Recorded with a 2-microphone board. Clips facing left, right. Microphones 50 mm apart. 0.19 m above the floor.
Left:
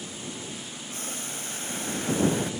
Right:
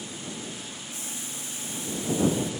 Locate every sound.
0.9 s boiling: 55° left (ahead or behind)